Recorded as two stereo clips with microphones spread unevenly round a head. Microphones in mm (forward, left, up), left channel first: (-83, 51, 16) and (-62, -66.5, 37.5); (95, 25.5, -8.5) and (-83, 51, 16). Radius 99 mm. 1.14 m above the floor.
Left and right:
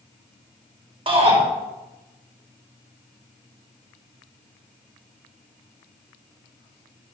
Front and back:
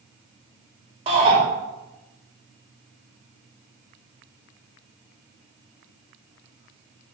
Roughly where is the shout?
Behind right.